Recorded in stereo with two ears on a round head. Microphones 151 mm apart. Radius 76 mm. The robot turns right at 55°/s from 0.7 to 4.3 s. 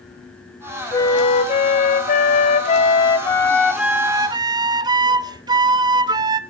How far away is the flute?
About 0.6 m.